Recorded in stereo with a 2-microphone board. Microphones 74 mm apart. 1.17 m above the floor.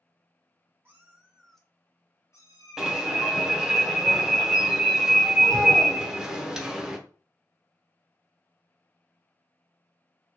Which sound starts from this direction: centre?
An alarm, at 2.8 s.